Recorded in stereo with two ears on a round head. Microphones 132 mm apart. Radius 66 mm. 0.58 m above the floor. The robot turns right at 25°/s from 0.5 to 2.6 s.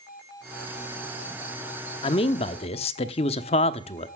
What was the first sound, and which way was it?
A man speaking, 35° left (ahead or behind).